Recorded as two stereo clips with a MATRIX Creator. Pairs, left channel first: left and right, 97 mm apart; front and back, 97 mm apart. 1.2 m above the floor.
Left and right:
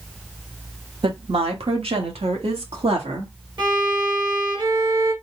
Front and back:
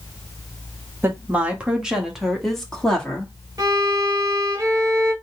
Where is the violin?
130° right, 1.6 m.